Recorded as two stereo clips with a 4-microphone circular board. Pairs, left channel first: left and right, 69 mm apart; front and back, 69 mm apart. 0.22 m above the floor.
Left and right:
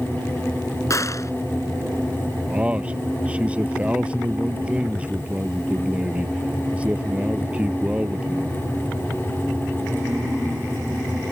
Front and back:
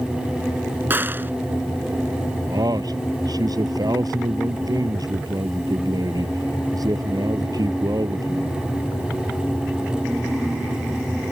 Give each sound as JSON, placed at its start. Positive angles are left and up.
{"t": 0.9, "sound": "a gunshot", "azimuth_deg": 125}
{"t": 2.5, "sound": "a man speaking", "azimuth_deg": -160}